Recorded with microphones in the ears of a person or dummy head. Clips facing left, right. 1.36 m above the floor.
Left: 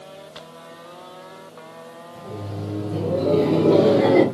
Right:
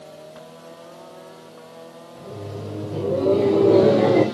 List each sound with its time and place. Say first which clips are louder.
2.1 s laughter: left 1 dB; 10° right (ahead or behind), 2.5 m; by 4.2 s 10° left (ahead or behind), 1.0 m